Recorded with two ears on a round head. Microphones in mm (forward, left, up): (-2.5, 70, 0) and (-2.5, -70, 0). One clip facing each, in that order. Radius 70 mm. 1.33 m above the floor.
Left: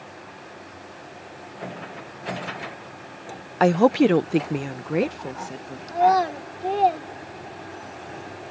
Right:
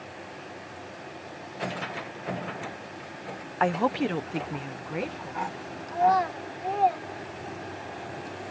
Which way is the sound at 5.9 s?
45° left (ahead or behind).